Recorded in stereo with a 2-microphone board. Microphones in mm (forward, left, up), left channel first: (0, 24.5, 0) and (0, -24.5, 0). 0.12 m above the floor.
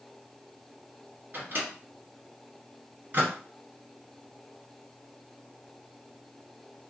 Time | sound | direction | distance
1.3 | a microwave | 40° right (ahead or behind) | 1.7 m